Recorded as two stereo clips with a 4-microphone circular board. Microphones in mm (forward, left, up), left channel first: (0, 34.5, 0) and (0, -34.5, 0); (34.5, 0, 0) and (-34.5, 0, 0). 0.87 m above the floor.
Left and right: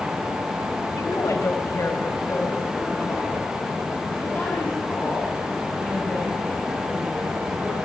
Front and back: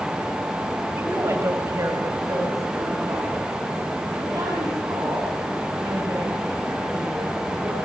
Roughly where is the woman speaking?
Behind left.